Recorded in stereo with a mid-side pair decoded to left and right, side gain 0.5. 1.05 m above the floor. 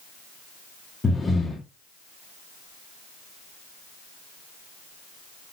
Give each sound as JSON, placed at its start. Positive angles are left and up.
{"t": 1.0, "sound": "breathing", "azimuth_deg": 25, "distance_m": 2.0}